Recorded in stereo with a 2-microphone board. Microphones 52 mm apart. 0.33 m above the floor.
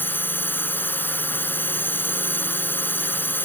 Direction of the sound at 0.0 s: 40° left (ahead or behind).